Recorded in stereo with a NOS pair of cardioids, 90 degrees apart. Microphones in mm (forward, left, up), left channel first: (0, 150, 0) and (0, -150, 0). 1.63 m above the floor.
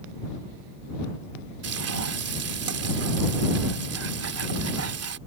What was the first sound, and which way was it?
Frying, 55° right.